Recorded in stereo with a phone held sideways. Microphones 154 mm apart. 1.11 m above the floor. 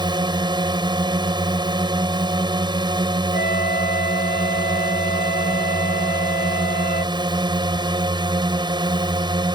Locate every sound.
0.0 s a drone: 30° right (ahead or behind)
3.3 s a flute: 85° left